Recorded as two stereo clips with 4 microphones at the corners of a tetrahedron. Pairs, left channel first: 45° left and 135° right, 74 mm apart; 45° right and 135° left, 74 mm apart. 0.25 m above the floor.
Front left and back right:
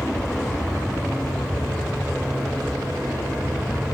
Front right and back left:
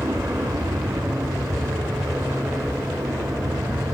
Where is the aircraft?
130° left; by 4.0 s 150° left.